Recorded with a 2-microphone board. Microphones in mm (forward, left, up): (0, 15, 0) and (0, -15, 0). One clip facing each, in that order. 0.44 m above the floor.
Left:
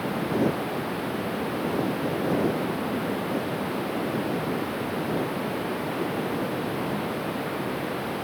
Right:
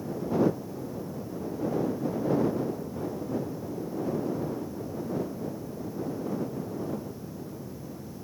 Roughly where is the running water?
Left.